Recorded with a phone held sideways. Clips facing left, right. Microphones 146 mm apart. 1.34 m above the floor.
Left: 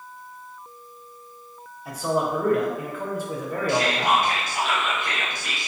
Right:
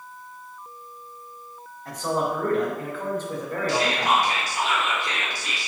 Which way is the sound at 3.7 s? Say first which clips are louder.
Left 1 dB; 55° left (ahead or behind).